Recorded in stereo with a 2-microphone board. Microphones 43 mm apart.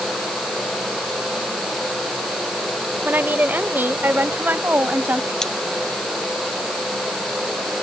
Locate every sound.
3.0 s a woman speaking: 45° right (ahead or behind); by 5.3 s 50° right (ahead or behind)
5.4 s cutlery clinking: 15° left (ahead or behind)